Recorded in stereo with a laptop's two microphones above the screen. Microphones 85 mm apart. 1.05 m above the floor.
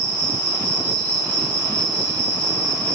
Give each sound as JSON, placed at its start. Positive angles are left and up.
{"t": 0.0, "sound": "an insect", "side_deg": 25, "distance_m": 2.5}